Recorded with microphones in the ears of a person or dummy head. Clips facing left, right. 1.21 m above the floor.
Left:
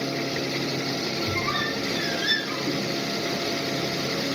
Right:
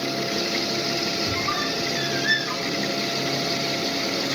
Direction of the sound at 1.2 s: 30° left (ahead or behind).